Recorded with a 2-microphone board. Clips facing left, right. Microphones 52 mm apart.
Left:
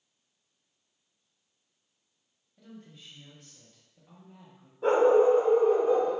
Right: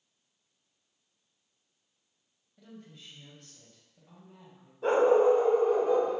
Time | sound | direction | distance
2.6 | a woman speaking | 5° left (ahead or behind) | 0.9 m
4.8 | a dog barking | 15° left (ahead or behind) | 1.2 m